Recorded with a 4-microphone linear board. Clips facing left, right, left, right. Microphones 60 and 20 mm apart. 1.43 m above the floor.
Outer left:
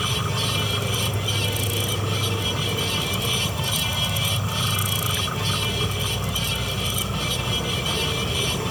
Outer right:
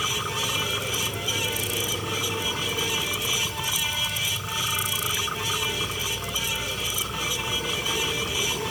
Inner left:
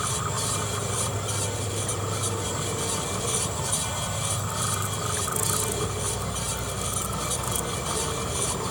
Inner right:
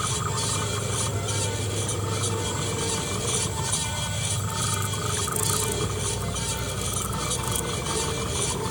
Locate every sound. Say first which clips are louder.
0.0 s an insect: outer left 2 dB, inner right 1 dB; 70° left (ahead or behind)